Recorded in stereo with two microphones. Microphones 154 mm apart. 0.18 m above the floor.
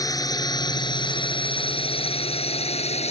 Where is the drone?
25° left (ahead or behind); by 3.1 s 45° left (ahead or behind).